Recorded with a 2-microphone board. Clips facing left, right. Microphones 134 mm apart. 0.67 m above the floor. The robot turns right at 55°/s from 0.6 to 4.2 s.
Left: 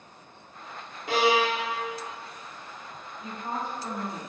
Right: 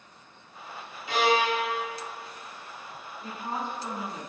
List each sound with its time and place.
1.1 s a violin: 55° left, 0.9 m; by 1.9 s 105° left, 0.9 m
3.2 s a woman speaking: 45° left, 1.8 m; by 4.3 s 100° left, 1.8 m